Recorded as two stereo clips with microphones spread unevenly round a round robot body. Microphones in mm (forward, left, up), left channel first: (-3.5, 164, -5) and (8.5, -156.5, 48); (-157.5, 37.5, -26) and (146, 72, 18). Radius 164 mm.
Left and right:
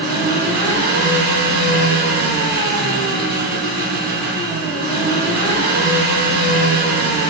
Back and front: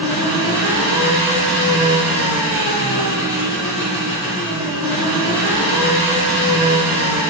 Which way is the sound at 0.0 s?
150° right.